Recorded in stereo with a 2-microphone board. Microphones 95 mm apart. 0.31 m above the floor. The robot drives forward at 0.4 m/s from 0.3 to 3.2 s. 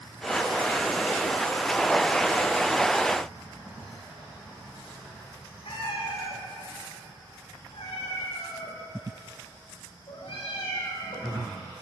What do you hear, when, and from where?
5.7 s a cat meowing: 75° left (ahead or behind), 7 m